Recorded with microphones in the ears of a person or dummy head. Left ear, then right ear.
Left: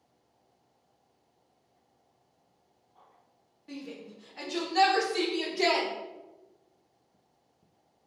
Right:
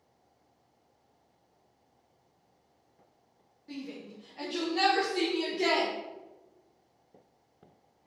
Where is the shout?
25° left (ahead or behind), 1.1 m; by 5.9 s 55° left (ahead or behind), 1.2 m.